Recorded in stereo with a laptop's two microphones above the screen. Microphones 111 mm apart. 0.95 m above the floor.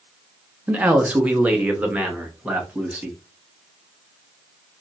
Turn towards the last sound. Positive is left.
turn(degrees=-10)  # may be behind; listen again after turning